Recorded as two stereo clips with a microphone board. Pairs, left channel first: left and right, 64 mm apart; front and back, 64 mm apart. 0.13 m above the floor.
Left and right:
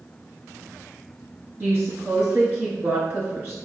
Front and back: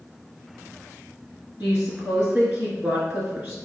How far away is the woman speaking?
About 1.5 m.